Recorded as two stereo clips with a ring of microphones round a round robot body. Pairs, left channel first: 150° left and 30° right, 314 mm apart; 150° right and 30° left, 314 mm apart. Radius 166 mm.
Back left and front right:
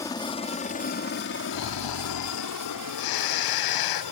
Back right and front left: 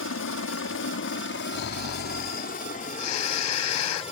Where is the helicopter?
135° right; by 4.1 s 140° left.